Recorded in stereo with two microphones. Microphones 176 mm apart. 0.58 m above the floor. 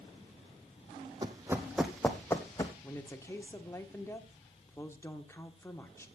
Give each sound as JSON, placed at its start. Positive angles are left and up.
{"t": 1.2, "sound": "running footsteps", "side_deg": -25, "distance_m": 1.1}
{"t": 2.8, "sound": "a woman speaking", "side_deg": 15, "distance_m": 1.4}